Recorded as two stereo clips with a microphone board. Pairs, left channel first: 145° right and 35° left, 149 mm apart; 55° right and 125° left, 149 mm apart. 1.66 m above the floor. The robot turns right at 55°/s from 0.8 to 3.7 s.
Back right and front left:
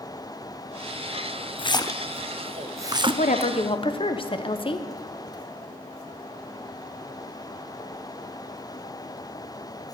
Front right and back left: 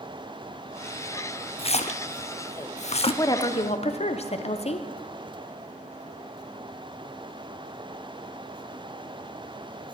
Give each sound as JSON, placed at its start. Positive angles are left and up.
{"t": 1.6, "sound": "a splash", "azimuth_deg": -100, "distance_m": 0.5}
{"t": 3.2, "sound": "a woman speaking", "azimuth_deg": -125, "distance_m": 0.8}